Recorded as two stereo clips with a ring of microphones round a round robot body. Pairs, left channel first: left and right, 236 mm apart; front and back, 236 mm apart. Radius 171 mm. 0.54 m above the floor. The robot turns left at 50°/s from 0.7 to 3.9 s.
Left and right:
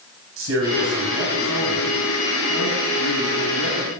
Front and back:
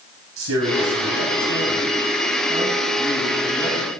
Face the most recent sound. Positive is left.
turn(degrees=65)